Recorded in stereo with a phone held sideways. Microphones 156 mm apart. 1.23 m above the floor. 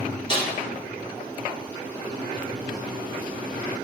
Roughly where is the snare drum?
Left.